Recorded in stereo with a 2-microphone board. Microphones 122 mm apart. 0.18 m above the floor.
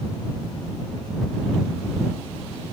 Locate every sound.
Only background noise.